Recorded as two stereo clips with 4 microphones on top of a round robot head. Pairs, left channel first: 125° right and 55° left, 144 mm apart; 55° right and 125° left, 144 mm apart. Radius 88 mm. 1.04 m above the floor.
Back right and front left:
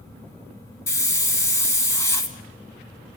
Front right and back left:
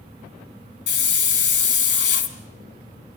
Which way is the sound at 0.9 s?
55° right.